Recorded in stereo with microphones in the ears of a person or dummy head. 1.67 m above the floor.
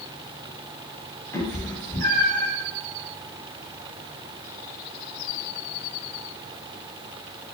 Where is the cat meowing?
10° left (ahead or behind), 1.9 m; by 2.5 s 15° left (ahead or behind), 1.4 m.